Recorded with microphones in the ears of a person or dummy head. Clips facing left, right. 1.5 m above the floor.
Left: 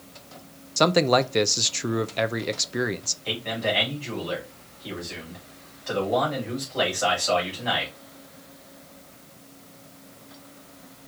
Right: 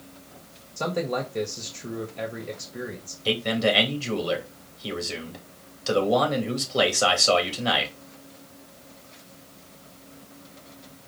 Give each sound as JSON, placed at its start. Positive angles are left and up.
{"t": 0.8, "sound": "a man speaking", "side_deg": 80, "distance_m": 0.6}
{"t": 3.2, "sound": "a man speaking", "side_deg": -50, "distance_m": 2.0}